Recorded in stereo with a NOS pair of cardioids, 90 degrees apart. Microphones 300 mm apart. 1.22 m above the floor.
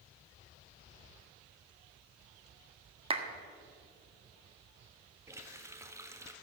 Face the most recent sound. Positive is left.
turn(degrees=-10)